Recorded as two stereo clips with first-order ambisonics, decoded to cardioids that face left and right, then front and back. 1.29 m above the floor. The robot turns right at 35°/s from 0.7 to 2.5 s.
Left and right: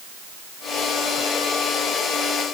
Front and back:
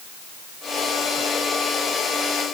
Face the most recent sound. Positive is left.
No sound to turn to.